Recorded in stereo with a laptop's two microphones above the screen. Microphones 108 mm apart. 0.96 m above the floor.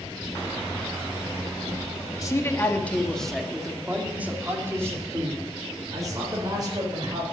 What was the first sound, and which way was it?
A man speaking, 30° left (ahead or behind).